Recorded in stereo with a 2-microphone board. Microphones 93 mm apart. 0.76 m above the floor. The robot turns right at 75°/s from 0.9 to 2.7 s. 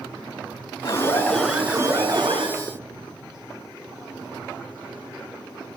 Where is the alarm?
140° left, 6 m; by 2.5 s 100° right, 6 m.